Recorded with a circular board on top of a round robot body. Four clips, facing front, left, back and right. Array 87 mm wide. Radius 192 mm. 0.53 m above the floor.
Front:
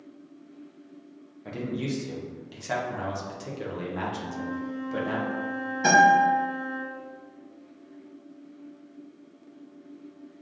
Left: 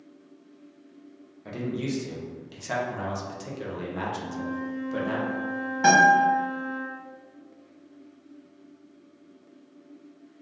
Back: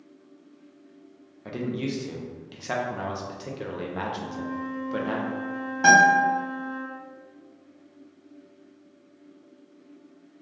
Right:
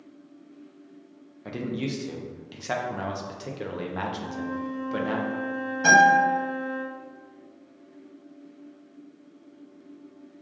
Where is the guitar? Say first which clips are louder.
Even, back 1 dB; 135° left, 1.4 m.